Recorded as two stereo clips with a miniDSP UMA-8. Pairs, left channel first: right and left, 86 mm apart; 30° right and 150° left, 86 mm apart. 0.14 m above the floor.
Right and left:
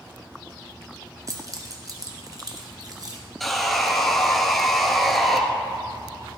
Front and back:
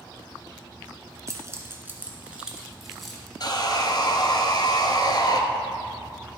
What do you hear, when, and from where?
1.3 s keys jangling: 120° left, 1.2 m; by 3.2 s 55° left, 1.6 m
3.4 s sawing: straight ahead, 0.9 m